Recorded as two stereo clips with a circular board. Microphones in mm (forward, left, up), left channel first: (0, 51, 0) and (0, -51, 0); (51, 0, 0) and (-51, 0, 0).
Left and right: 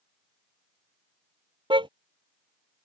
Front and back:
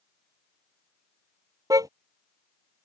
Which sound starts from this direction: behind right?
A car horn, at 1.7 s.